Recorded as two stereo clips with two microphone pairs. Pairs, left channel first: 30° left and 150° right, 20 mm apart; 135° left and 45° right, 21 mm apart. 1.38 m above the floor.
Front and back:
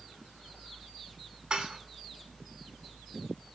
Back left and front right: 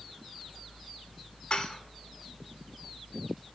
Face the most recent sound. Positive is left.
turn(degrees=175)